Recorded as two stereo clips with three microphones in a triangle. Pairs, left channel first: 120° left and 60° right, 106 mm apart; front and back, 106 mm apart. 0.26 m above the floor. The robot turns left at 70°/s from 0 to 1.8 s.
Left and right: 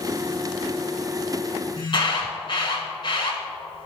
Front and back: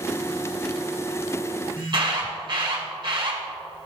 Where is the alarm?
150° left, 1.3 m.